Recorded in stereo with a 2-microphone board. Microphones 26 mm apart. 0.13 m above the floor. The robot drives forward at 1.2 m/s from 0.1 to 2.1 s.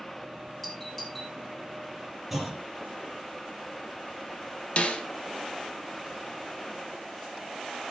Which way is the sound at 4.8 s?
50° left (ahead or behind).